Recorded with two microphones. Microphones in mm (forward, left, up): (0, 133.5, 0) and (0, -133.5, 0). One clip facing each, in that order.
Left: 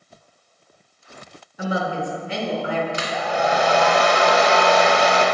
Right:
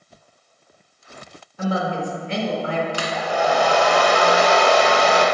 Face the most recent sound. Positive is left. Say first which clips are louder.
# right 1 dB
turn(degrees=25)  # may be behind; listen again after turning